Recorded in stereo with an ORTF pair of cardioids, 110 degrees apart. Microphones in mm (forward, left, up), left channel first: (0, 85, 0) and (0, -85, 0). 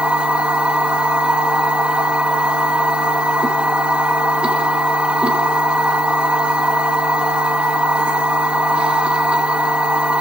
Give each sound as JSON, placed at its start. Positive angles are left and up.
{"t": 0.0, "sound": "a machine running", "azimuth_deg": -5, "distance_m": 1.8}